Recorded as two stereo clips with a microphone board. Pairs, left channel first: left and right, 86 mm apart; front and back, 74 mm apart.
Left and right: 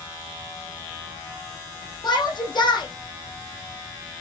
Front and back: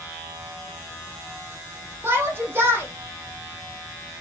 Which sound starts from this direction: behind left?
A shout, at 2.0 s.